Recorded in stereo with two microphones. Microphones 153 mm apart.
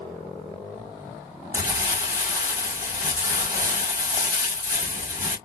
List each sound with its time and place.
1.5 s crumpling: 20° right (ahead or behind), 1.7 m